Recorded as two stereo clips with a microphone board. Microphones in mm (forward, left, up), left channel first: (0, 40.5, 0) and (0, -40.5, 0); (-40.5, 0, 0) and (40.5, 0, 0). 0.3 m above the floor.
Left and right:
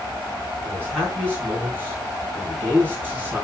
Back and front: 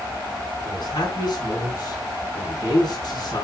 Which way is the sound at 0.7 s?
155° right.